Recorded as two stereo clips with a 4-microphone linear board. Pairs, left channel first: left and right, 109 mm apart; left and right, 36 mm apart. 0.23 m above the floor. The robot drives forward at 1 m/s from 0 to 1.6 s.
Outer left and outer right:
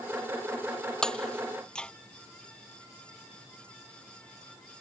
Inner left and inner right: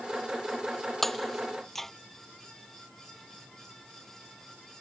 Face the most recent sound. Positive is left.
turn(degrees=5)  # may be behind; listen again after turning